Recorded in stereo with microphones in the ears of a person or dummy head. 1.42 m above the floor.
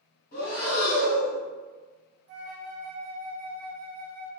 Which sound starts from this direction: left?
Breathing, at 0.3 s.